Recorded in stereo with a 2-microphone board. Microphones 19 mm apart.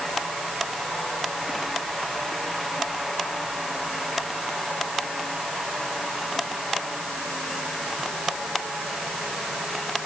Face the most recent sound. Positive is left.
No sound to turn to.